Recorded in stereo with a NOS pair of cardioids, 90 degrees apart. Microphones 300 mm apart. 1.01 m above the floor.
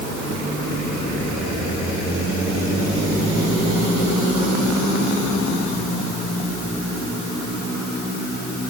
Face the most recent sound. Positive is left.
No sound to turn to.